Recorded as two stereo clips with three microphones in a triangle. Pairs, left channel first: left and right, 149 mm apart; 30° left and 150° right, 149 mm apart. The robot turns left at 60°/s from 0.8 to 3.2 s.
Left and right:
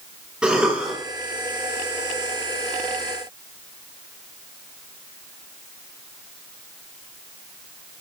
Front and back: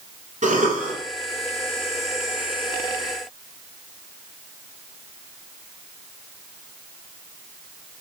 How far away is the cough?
About 2.5 m.